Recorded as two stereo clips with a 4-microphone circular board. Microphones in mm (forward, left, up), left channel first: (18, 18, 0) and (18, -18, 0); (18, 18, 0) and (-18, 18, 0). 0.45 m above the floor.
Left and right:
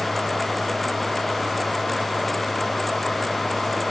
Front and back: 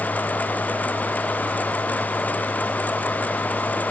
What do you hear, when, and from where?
Only background noise.